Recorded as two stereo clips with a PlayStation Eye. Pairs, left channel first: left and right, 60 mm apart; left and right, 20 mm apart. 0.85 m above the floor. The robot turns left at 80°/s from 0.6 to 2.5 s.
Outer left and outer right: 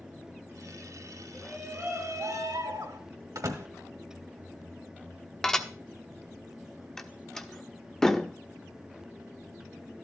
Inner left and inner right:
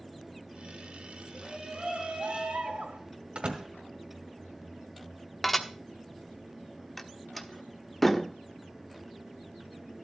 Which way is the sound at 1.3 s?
5° left.